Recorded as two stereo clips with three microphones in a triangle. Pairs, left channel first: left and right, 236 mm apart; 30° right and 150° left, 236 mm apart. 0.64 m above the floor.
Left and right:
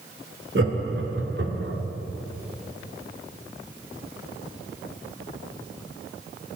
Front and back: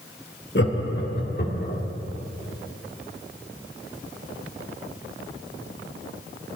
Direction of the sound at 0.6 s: 65° right.